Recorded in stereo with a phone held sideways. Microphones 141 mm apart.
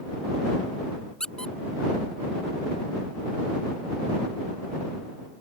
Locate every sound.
1.2 s a squeak: 5° left (ahead or behind)